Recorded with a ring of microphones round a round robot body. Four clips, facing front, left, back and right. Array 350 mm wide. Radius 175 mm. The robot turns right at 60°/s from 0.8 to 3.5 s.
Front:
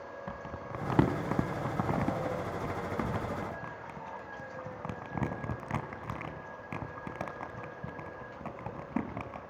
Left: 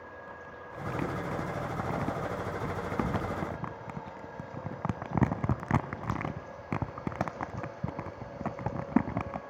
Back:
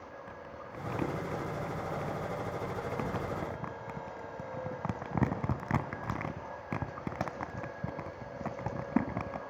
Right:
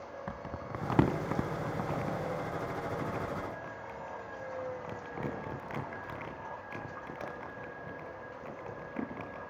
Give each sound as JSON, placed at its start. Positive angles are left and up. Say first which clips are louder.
{"t": 0.3, "sound": "crumpling", "louder": "right 4 dB, front 4 dB", "azimuth_deg": -55, "distance_m": 2.0}